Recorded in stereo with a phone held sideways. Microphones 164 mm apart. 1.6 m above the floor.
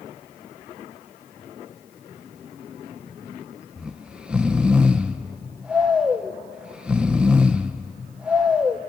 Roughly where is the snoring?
Centre.